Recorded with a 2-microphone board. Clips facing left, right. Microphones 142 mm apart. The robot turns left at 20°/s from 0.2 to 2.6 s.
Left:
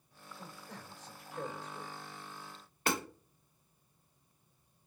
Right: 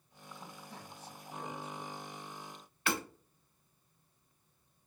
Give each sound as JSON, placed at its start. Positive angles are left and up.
{"t": 0.3, "sound": "a man speaking", "azimuth_deg": 110, "distance_m": 3.5}
{"t": 2.9, "sound": "hammering", "side_deg": 40, "distance_m": 2.0}